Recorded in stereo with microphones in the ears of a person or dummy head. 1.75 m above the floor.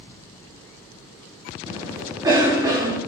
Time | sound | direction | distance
1.7 | a cough | 15° right (ahead or behind) | 0.7 m